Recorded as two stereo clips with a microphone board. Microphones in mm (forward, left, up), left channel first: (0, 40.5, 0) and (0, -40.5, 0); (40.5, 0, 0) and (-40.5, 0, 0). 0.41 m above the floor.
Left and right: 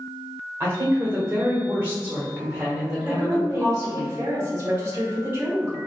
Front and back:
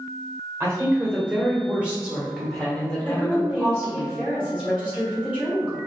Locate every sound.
0.6 s a woman speaking: 135° right, 1.6 m; by 4.1 s 15° left, 1.3 m
3.1 s a woman speaking: 125° right, 1.3 m